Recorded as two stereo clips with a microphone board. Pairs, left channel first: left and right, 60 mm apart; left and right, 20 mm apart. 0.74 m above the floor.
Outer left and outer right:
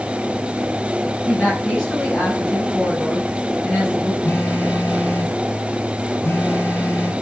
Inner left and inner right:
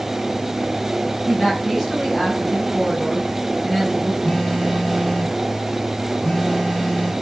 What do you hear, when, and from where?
1.3 s a woman speaking: 10° left (ahead or behind), 6 m
4.2 s a phone buzzing: 40° left (ahead or behind), 3.5 m